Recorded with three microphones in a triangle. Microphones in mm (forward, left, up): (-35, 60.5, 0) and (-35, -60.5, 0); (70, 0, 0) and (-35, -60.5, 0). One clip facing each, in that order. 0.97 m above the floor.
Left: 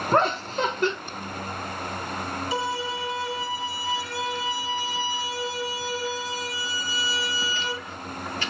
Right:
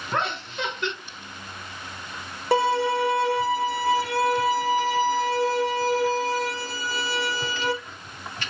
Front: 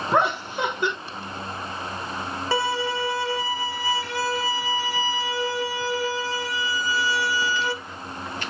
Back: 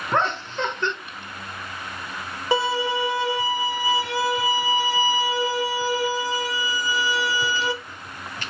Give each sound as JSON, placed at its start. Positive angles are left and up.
{"t": 0.1, "sound": "laughter", "azimuth_deg": 100, "distance_m": 0.6}
{"t": 2.5, "sound": "a violin", "azimuth_deg": -75, "distance_m": 0.9}